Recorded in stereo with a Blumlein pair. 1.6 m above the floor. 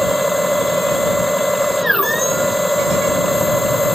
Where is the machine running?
Straight ahead.